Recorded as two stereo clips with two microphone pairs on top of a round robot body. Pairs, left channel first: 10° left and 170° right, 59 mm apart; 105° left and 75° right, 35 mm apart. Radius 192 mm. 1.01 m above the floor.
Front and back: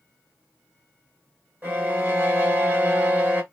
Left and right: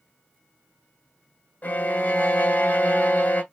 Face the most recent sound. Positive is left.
turn(degrees=130)